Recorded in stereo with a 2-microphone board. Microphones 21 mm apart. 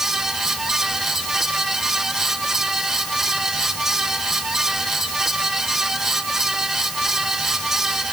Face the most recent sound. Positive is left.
No sound to turn to.